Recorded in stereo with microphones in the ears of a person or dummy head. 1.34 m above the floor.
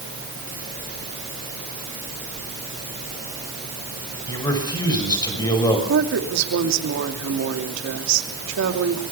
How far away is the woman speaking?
About 2.5 m.